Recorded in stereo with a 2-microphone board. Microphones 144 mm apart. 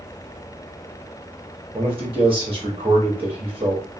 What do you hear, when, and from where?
1.7 s a man speaking: 40° right (ahead or behind), 1.0 m